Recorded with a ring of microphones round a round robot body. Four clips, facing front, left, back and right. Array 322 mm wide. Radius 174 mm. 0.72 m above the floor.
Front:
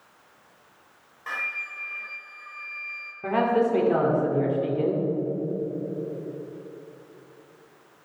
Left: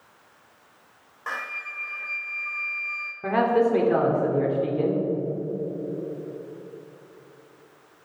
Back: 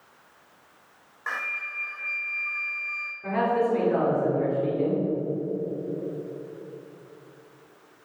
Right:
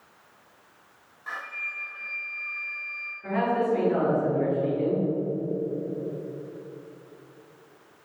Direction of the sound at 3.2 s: 55° left.